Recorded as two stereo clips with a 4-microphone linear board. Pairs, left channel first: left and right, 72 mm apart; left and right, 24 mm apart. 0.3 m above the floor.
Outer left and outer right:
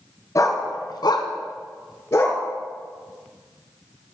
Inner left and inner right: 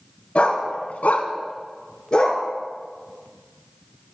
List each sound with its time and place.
0.3 s a dog barking: 45° left (ahead or behind), 1.3 m; by 2.4 s 30° left (ahead or behind), 1.6 m